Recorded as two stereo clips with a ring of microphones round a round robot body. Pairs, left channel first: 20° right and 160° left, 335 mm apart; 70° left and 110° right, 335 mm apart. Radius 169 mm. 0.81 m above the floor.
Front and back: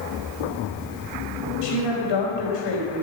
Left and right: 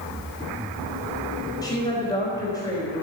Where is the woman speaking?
10° right, 4 m.